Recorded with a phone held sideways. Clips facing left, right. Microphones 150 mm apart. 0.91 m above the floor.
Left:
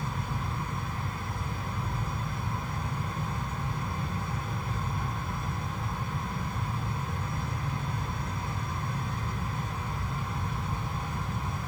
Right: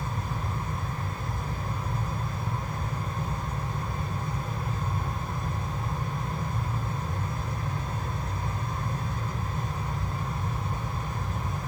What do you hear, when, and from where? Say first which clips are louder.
0.0 s a fan: right 1 dB; 40° right (ahead or behind), 1.1 m